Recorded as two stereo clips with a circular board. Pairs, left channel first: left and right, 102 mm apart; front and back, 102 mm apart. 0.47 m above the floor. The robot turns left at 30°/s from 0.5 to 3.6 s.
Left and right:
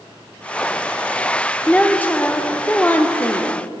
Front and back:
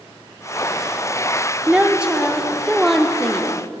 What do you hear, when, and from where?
1.7 s a woman speaking: 130° left, 0.7 m; by 3.6 s 70° left, 0.7 m